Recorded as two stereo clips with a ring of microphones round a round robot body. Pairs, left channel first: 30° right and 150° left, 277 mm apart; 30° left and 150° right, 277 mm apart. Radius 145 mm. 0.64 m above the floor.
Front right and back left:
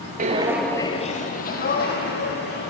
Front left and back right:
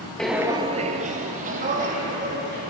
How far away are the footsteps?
About 0.7 m.